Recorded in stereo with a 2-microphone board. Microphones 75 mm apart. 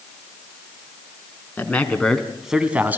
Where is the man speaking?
20° left (ahead or behind), 2.5 m; by 3.0 s 30° right (ahead or behind), 1.7 m.